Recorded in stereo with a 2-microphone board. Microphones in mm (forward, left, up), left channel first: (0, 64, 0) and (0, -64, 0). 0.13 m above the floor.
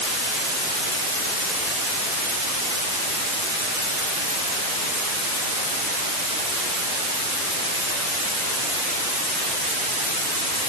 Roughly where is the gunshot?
No gunshot in this recording.